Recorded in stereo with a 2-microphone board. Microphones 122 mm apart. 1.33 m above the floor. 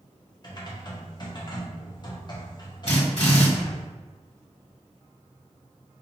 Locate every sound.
0.4 s typing on a keyboard: 35° left (ahead or behind), 0.9 m
2.9 s a drill: 55° left (ahead or behind), 1.7 m